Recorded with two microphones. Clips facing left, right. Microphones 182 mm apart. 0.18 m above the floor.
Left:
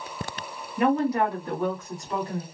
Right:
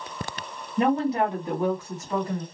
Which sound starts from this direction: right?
A woman speaking, at 0.8 s.